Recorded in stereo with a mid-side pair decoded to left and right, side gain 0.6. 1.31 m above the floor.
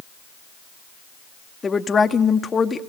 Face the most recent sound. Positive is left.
turn(degrees=25)